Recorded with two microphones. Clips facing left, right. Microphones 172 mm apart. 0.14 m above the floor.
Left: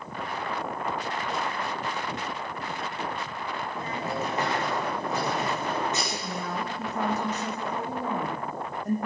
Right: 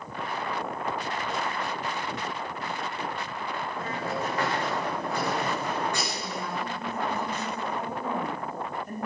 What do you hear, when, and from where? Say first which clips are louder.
3.8 s a hiss: left 1 dB; 20° left (ahead or behind), 8 m
6.1 s a woman speaking: left 1 dB; 80° left, 7.5 m